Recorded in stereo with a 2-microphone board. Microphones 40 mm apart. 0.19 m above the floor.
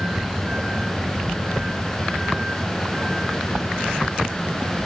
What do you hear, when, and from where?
0.0 s a vehicle: 10° right (ahead or behind)